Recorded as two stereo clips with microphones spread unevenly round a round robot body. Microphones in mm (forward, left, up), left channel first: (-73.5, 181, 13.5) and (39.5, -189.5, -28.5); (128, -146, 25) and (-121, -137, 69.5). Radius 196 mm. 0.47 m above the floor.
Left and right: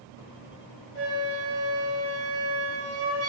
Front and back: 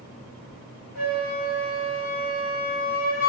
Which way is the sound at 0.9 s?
145° left.